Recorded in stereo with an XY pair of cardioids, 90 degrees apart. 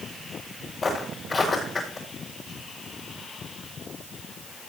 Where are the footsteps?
40° left, 6 m.